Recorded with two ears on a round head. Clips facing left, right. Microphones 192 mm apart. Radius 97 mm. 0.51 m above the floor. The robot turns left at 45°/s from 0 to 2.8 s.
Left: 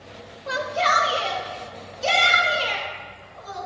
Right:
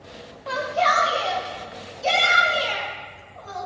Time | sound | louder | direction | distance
0.5 | a shout | right 2 dB | 160° left | 2.5 m